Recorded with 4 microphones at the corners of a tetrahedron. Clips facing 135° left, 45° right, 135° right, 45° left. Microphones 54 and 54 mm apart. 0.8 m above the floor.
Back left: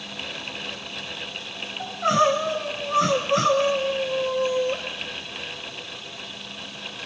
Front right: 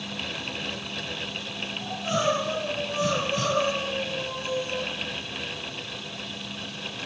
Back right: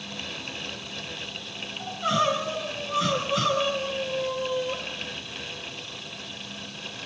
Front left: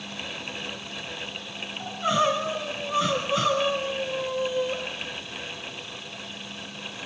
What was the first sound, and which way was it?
Crying, 125° left.